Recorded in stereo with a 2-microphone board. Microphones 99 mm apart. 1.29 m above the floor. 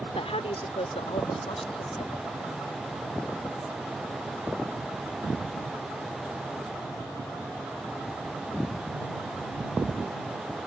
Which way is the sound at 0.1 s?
80° left.